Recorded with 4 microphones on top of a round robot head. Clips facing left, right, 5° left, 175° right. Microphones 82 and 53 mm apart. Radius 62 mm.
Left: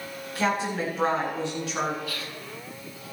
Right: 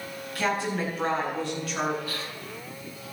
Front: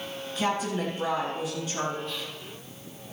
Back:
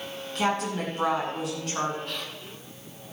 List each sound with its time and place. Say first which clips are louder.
0.3 s a woman speaking: left 1 dB, back 1 dB; 160° left, 8.5 m
2.1 s whispering: even, even; 145° right, 1.7 m